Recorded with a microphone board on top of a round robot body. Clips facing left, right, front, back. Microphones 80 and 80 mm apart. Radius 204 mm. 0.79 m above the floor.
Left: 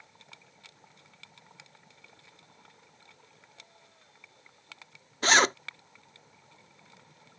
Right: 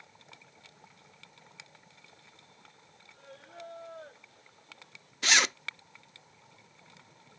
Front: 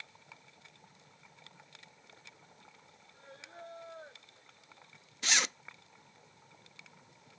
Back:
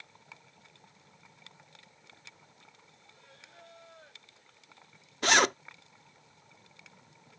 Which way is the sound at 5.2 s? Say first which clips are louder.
Left 5 dB, back 10 dB; 140° left.